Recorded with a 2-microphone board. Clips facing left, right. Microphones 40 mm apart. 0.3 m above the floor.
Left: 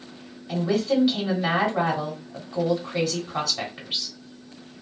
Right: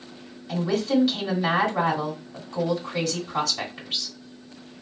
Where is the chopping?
I don't hear chopping.